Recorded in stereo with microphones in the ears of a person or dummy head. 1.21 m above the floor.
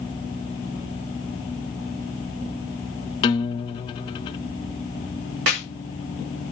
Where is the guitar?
25° left (ahead or behind), 0.5 m.